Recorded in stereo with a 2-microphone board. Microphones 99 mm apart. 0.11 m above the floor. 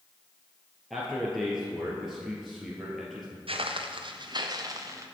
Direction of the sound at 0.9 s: Centre (ahead or behind).